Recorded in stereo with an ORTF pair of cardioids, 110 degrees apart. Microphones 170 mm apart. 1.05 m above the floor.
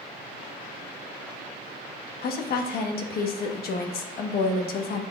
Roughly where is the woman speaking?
Ahead left.